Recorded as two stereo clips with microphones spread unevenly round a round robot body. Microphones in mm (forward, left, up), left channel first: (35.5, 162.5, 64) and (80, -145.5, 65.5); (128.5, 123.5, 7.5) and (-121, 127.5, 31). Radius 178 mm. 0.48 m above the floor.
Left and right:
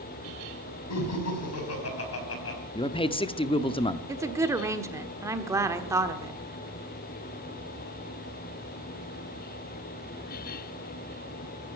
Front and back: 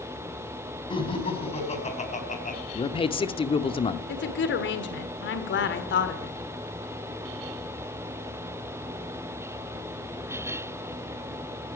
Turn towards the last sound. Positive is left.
turn(degrees=-5)